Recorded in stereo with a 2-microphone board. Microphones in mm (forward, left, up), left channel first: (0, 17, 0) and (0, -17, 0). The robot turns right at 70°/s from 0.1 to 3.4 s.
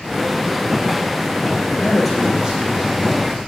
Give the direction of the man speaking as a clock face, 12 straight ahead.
7 o'clock.